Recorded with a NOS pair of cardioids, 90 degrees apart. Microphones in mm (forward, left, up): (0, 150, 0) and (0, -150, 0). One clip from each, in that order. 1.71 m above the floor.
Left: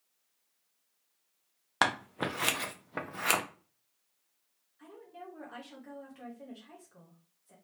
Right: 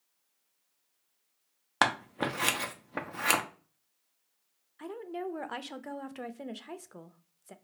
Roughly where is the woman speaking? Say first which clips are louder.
Right 10 dB; ahead right.